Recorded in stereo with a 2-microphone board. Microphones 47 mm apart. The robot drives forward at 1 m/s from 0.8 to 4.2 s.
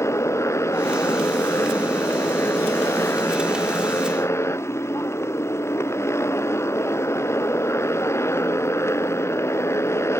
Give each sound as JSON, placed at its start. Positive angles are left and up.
{"t": 0.0, "sound": "a motorcycle", "side_deg": 85}